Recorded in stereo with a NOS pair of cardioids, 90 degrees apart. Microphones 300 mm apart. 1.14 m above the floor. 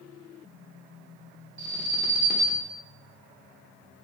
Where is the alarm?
35° right, 1.0 m.